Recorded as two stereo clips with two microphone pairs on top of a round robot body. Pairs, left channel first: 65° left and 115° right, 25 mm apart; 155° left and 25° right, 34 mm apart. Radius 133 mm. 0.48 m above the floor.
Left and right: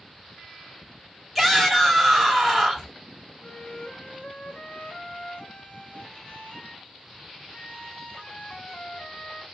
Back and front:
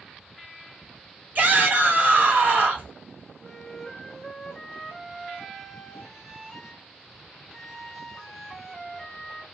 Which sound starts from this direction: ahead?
A shout, at 1.4 s.